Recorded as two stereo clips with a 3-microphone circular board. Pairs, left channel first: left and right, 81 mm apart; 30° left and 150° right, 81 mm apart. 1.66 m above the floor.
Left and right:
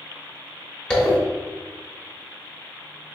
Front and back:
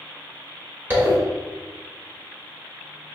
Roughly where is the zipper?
Behind.